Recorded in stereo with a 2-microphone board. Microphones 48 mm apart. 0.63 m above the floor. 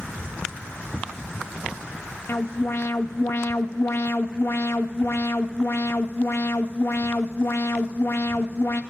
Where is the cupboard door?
90° right, 7.5 m.